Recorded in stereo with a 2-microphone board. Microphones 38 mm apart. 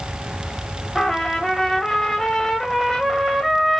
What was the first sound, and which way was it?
A trumpet, 10° left (ahead or behind).